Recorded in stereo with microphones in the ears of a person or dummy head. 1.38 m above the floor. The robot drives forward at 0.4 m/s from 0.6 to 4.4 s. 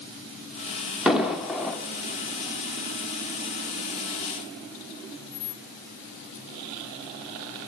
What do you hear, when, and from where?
1.1 s an explosion: 5° right (ahead or behind), 0.8 m; by 1.8 s centre (ahead or behind), 1.0 m